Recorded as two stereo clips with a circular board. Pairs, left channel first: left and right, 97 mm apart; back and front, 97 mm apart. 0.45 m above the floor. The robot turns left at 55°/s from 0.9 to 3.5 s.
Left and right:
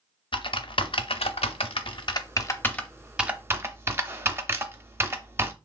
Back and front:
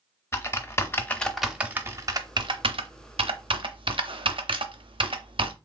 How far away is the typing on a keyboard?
About 0.6 m.